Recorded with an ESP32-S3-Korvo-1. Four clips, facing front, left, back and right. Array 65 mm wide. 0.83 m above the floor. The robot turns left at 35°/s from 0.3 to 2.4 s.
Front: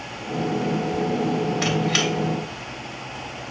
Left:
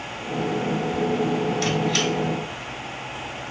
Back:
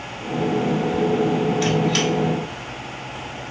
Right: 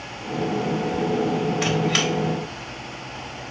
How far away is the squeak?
About 0.9 m.